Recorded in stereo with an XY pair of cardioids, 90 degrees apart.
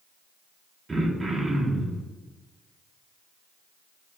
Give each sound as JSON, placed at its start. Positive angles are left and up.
{"t": 0.9, "sound": "throat clearing", "azimuth_deg": -30, "distance_m": 1.7}